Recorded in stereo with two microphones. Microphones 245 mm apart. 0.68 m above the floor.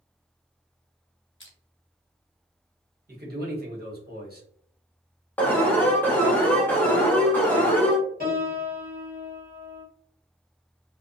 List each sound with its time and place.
1.4 s crushing: 55° left (ahead or behind), 0.8 m
3.1 s a man speaking: 40° right (ahead or behind), 1.1 m
5.4 s an alarm: 5° left (ahead or behind), 0.7 m
8.2 s a piano: 40° right (ahead or behind), 1.3 m